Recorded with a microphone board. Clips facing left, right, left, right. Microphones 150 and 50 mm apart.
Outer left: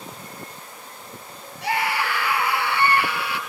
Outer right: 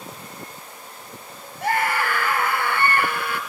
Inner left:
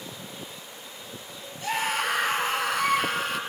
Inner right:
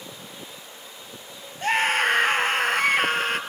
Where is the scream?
50° right (ahead or behind), 2.5 m.